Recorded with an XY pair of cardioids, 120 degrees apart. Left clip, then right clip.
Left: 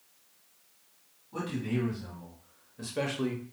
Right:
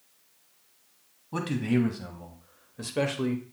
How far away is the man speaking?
About 2 m.